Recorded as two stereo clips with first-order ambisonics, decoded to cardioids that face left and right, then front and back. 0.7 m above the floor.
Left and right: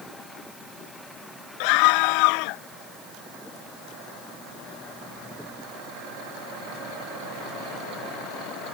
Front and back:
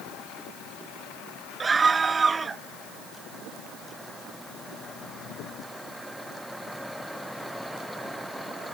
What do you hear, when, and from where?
1.6 s a scream: 105° left